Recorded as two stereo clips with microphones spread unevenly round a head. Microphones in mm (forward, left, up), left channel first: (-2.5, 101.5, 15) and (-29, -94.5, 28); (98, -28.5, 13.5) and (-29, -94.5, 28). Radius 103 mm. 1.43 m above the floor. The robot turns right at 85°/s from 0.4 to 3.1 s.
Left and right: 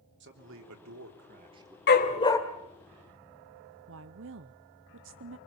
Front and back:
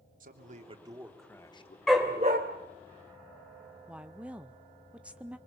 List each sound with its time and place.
0.2 s a man speaking: 130° right, 3 m; by 1.8 s 15° right, 3 m
1.9 s a dog barking: 120° left, 2 m; by 2.4 s 160° left, 2 m
3.9 s a woman speaking: 70° right, 0.7 m